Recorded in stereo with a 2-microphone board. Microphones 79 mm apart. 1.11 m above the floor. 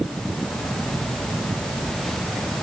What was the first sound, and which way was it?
Only background noise.